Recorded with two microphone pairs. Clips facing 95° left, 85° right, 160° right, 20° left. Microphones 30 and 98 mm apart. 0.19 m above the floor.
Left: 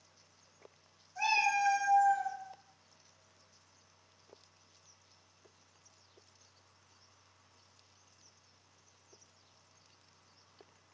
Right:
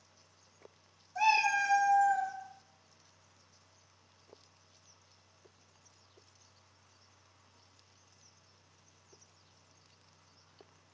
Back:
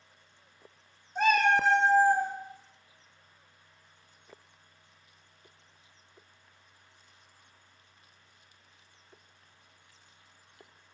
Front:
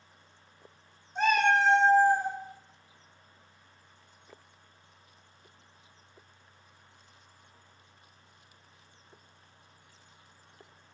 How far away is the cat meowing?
About 1.4 m.